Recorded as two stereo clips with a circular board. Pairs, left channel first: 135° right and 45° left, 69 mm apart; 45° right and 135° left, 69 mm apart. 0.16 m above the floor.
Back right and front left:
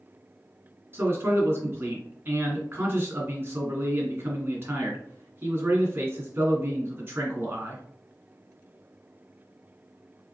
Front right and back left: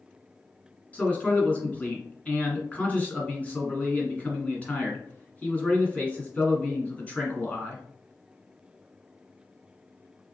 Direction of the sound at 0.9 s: 10° left.